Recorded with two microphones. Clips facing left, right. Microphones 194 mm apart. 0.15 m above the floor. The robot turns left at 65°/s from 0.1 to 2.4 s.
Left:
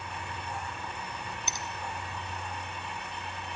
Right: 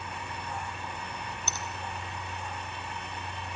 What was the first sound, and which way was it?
A finger snap, 15° left (ahead or behind).